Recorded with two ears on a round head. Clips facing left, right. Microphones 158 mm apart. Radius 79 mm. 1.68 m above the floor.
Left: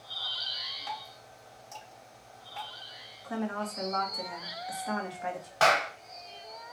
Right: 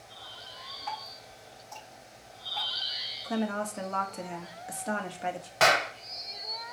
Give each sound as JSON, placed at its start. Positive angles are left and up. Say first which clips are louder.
{"t": 0.9, "sound": "dripping", "louder": "right 1 dB", "side_deg": 35, "distance_m": 3.5}
{"t": 3.2, "sound": "a woman speaking", "louder": "right 3 dB", "side_deg": -35, "distance_m": 1.1}
{"t": 5.6, "sound": "a clap", "louder": "even", "side_deg": -25, "distance_m": 1.0}